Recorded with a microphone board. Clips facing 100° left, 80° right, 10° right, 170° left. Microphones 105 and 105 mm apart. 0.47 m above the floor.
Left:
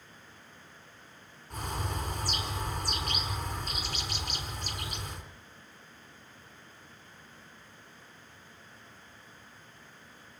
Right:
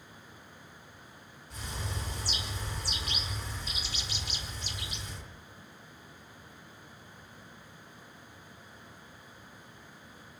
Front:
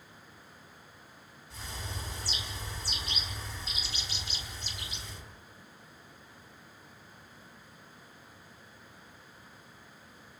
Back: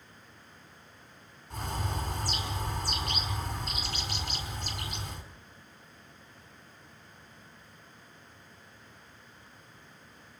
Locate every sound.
1.5 s a bird: 135° left, 4.5 m